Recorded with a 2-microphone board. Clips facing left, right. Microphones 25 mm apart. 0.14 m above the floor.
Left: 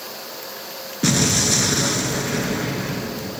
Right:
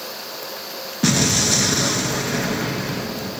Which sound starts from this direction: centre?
An explosion, at 1.0 s.